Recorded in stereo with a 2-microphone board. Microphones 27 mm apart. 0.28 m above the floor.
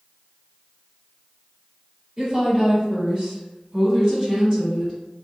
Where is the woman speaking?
30° right (ahead or behind), 1.7 m; by 4.9 s 25° right (ahead or behind), 2 m.